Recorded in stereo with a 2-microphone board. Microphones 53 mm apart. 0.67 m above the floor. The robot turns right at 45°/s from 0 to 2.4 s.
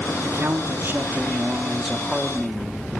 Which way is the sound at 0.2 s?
95° right.